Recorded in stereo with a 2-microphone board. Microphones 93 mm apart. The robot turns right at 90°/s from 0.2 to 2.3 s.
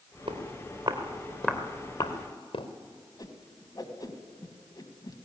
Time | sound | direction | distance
0.3 | footsteps | 85° right | 3.5 m
3.2 | a whoosh | 45° left (ahead or behind) | 1.8 m